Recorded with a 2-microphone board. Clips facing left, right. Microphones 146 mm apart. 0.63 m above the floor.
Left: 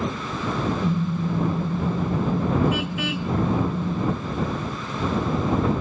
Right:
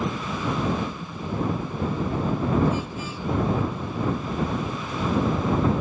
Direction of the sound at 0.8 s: 80° left.